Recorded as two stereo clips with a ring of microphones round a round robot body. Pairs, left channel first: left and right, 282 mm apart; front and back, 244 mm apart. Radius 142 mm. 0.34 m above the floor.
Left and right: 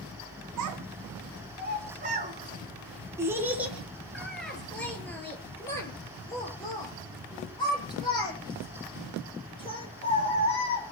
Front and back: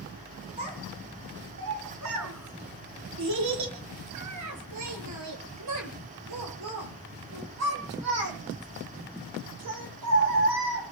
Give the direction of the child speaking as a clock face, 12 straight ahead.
4 o'clock.